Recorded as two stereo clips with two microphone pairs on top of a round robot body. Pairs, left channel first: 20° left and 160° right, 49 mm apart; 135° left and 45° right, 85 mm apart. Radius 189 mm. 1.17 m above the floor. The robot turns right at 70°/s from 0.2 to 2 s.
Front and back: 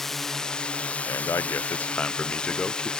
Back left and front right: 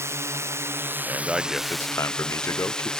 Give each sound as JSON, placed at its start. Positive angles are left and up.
{"t": 0.0, "sound": "a drone", "azimuth_deg": -60}
{"t": 1.1, "sound": "a man speaking", "azimuth_deg": 15}